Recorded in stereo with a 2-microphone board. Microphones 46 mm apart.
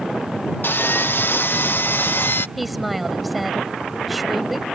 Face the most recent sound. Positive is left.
turn(degrees=0)  # may be behind; listen again after turning